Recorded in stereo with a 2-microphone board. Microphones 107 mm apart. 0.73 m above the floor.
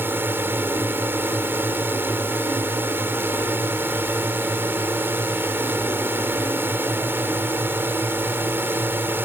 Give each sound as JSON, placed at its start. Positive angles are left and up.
{"t": 0.0, "sound": "a drone", "side_deg": -20}